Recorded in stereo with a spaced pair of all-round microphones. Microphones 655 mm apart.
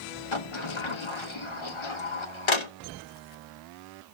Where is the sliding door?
45° left (ahead or behind), 0.9 m.